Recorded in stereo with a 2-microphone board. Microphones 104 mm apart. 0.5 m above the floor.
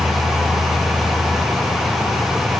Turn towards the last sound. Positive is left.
No sound to turn to.